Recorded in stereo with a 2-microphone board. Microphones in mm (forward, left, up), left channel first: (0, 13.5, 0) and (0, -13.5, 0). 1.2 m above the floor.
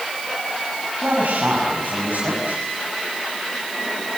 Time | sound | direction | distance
1.0 | a man speaking | 75° right (ahead or behind) | 7 m